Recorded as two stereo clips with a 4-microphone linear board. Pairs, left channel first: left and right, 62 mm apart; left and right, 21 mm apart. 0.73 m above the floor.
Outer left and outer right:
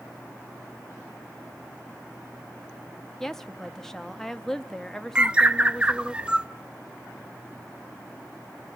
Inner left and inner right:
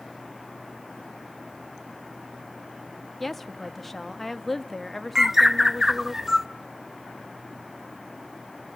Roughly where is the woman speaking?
Centre.